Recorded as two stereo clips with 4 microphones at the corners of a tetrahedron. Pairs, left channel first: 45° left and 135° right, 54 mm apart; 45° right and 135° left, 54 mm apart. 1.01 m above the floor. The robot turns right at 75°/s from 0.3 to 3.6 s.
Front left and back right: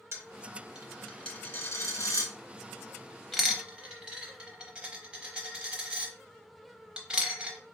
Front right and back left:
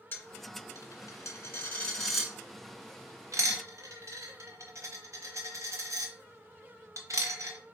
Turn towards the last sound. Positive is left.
turn(degrees=155)